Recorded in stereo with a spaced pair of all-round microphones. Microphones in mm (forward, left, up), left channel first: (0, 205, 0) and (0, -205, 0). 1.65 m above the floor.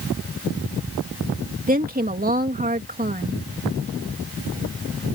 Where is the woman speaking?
20° right (ahead or behind).